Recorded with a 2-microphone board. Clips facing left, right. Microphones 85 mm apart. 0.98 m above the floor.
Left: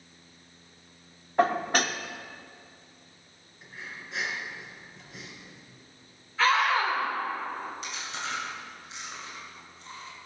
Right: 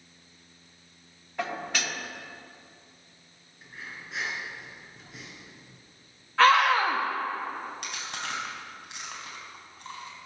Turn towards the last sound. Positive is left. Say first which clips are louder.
# even
turn(degrees=-65)  # may be behind; listen again after turning